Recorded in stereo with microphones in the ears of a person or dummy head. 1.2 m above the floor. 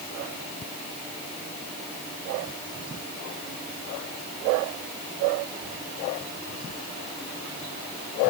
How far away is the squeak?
I don't hear a squeak.